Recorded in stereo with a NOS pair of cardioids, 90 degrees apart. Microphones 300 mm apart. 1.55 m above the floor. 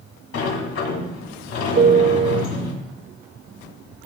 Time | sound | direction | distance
0.3 | a sliding door | 55° left | 2.0 m
1.8 | a piano | 45° right | 1.1 m